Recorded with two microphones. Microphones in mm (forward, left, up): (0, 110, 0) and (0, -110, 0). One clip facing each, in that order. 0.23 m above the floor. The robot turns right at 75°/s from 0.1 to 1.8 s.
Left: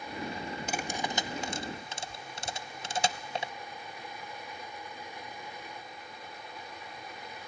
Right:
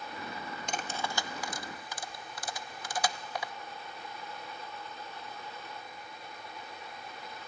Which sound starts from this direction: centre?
Cutlery clinking, at 0.7 s.